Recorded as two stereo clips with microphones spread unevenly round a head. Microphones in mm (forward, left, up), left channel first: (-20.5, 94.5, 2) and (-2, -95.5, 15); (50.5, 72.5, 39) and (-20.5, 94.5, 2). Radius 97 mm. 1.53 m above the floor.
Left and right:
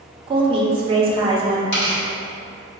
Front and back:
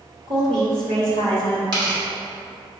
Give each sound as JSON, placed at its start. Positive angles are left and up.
{"t": 0.3, "sound": "a woman speaking", "azimuth_deg": -150, "distance_m": 1.0}
{"t": 1.7, "sound": "tearing paper", "azimuth_deg": 130, "distance_m": 1.8}